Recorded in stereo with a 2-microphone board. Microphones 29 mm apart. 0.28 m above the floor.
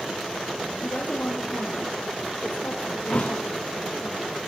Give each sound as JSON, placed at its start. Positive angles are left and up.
{"t": 0.8, "sound": "a woman speaking", "side_deg": 80, "distance_m": 7.5}
{"t": 3.1, "sound": "a thud", "side_deg": 50, "distance_m": 8.0}